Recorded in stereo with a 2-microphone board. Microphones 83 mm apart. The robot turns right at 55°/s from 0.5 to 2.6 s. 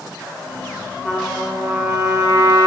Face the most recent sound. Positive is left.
turn(degrees=-115)